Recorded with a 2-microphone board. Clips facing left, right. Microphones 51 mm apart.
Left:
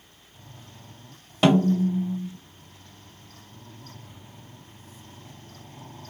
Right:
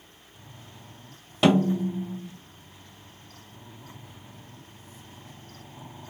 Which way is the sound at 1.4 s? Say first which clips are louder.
Left 2 dB; centre (ahead or behind).